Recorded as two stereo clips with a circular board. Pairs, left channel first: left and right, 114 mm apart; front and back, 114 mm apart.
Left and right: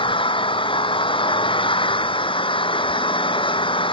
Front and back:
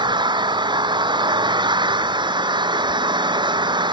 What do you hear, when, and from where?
0.0 s an engine running: 130° left